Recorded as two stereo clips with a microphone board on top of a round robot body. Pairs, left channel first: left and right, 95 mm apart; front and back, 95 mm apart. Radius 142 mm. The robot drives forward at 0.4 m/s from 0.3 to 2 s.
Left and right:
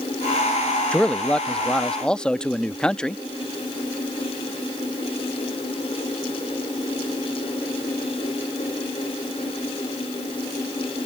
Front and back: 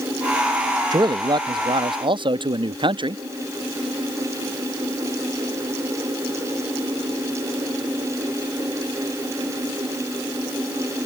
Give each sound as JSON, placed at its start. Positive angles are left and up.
{"t": 0.9, "sound": "a man speaking", "azimuth_deg": 165}